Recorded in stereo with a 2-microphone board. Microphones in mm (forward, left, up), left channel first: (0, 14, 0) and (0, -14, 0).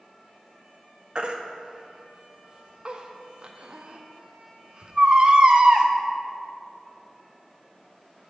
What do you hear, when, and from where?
1.1 s a baby crying: 35° right (ahead or behind), 0.6 m